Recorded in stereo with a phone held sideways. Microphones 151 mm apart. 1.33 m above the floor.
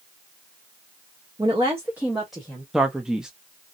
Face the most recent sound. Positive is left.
turn(degrees=-5)  # may be behind; listen again after turning